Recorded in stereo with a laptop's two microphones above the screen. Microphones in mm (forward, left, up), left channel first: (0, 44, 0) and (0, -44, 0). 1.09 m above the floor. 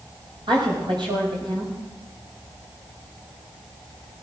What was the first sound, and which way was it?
A woman speaking, 65° right (ahead or behind).